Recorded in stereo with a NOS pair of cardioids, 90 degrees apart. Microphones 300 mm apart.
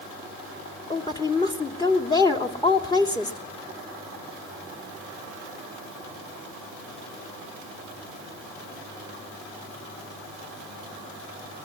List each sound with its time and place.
0.9 s a woman speaking: 15° left, 3 m